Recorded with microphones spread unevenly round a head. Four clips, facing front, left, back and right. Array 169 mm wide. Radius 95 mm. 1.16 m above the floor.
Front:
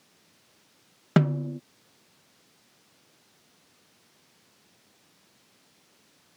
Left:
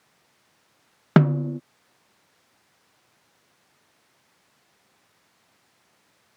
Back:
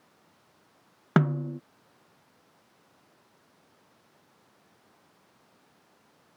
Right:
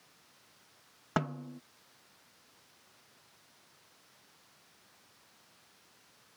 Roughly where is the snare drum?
Left.